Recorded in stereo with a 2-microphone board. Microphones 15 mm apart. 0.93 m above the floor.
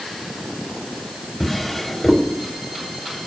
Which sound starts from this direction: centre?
A drawer, at 1.4 s.